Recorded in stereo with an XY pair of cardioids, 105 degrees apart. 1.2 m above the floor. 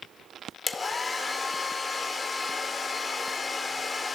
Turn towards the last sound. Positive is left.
turn(degrees=35)